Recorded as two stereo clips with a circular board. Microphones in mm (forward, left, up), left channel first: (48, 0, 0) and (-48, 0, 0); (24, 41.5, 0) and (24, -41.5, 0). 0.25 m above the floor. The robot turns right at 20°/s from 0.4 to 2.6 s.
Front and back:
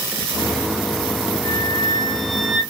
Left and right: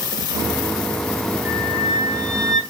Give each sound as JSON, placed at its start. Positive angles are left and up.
{"t": 1.4, "sound": "a flute", "azimuth_deg": -80, "distance_m": 2.0}